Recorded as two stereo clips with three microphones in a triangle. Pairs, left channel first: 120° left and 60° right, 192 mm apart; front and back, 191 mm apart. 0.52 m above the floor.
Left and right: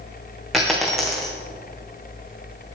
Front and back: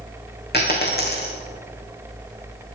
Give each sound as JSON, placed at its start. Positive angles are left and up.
{"t": 0.5, "sound": "a dropped coin", "azimuth_deg": 30, "distance_m": 2.0}